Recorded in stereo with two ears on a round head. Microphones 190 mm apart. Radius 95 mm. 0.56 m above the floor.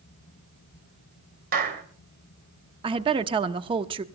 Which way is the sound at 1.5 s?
45° right (ahead or behind).